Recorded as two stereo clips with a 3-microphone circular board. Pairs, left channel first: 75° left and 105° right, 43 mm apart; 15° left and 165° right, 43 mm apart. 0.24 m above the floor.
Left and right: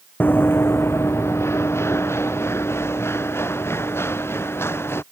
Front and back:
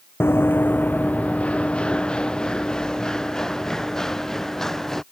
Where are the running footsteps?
35° left; by 5.0 s 95° left.